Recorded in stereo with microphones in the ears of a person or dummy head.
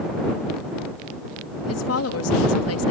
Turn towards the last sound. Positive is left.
turn(degrees=85)